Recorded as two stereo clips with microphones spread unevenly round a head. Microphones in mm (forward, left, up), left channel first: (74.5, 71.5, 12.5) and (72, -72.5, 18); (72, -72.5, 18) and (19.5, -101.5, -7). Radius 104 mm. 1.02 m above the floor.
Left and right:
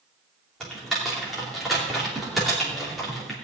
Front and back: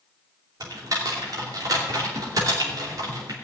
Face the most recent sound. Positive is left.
turn(degrees=180)